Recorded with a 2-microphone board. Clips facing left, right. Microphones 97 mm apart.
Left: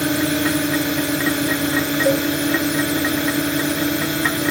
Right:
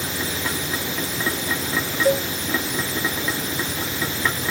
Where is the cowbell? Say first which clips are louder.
Left 1 dB; centre (ahead or behind).